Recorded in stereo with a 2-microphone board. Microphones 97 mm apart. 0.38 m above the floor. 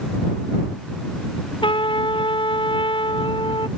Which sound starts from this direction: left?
A trumpet, at 1.6 s.